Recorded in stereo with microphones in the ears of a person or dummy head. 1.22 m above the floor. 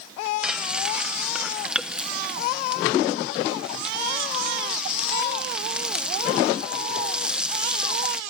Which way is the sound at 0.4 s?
Centre (ahead or behind).